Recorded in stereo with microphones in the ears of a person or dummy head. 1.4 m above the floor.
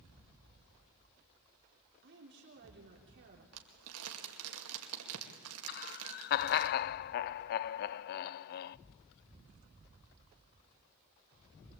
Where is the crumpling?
80° right, 2.5 m.